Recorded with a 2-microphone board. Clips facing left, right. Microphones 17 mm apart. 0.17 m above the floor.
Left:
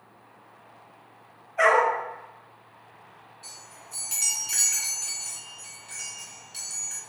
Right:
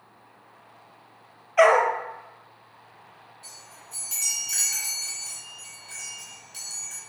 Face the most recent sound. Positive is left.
turn(degrees=15)  # may be behind; listen again after turning